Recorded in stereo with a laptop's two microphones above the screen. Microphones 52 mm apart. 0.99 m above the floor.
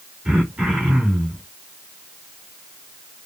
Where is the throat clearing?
15° right (ahead or behind), 1.7 m.